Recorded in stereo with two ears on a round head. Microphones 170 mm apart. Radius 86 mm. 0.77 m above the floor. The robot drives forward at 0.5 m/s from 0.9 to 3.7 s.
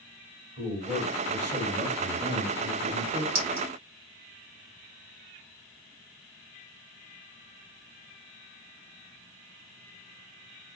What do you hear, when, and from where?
0.6 s a man speaking: 25° right (ahead or behind), 3.5 m; by 3.2 s 20° right (ahead or behind), 4.5 m
3.4 s a clink: 50° right (ahead or behind), 2.5 m